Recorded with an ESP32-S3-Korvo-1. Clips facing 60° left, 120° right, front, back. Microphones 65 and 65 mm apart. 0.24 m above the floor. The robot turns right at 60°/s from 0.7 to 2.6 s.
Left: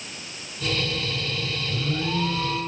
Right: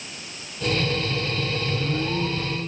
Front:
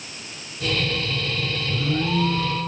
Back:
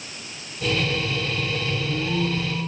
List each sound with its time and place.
1.7 s an alarm: 40° right, 3 m; by 2.7 s 15° left, 3 m